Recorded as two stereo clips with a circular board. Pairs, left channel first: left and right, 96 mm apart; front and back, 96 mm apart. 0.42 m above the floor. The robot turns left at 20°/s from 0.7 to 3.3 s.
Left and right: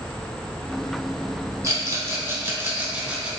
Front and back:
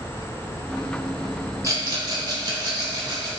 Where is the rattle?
135° right, 1.1 m; by 3.3 s 170° right, 1.1 m.